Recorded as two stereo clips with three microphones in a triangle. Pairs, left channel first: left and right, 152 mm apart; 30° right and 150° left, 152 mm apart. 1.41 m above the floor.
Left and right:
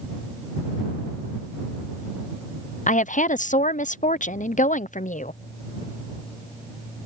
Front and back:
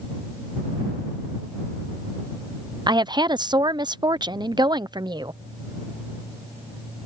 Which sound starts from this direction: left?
A woman speaking, at 2.9 s.